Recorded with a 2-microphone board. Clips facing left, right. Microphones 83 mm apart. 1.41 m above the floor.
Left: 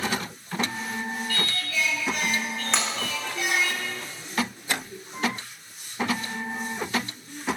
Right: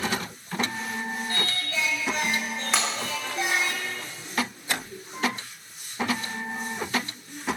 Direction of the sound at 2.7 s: 5° right (ahead or behind).